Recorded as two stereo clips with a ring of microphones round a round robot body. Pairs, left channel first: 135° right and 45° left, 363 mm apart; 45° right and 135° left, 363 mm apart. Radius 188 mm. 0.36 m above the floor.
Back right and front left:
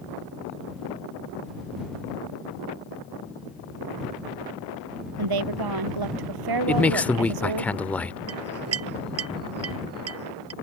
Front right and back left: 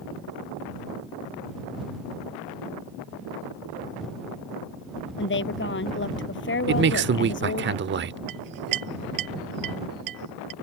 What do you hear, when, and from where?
5.2 s a woman speaking: 15° left
6.7 s a man speaking: 140° left
8.3 s a clink: 100° left